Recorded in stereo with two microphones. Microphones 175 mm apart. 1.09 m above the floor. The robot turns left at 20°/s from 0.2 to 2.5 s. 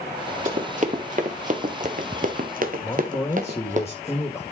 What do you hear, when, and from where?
0.5 s running footsteps: 50° right (ahead or behind), 2.5 m; by 3.8 s 45° right (ahead or behind), 2.5 m
2.8 s a man speaking: 15° left (ahead or behind), 1.6 m